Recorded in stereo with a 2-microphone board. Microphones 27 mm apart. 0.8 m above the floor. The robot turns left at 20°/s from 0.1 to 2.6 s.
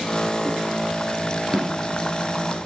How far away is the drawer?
About 3.5 m.